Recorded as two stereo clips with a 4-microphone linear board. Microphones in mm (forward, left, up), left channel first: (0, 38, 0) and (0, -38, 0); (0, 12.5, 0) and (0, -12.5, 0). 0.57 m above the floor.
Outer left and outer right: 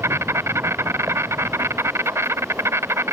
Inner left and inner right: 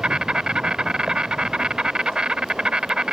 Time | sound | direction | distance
0.0 | an insect | 40° right (ahead or behind) | ?